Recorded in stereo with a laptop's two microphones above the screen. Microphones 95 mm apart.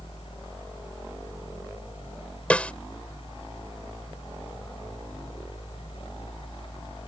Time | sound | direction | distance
0.0 | a fan | 80° left | ?
2.5 | a snare drum | 15° left (ahead or behind) | ?